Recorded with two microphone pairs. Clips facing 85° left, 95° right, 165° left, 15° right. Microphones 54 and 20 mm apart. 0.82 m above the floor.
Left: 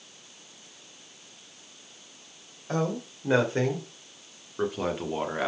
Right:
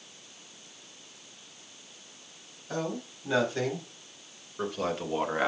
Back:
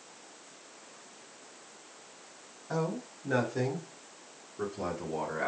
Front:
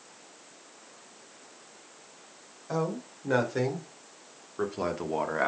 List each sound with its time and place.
2.7 s a man speaking: 40° left, 3 m; by 5.5 s 20° right, 1.4 m